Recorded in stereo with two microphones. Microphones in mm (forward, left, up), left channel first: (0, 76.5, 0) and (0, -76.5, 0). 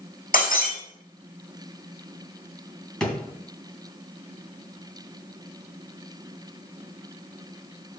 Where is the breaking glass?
65° left (ahead or behind), 4.5 m.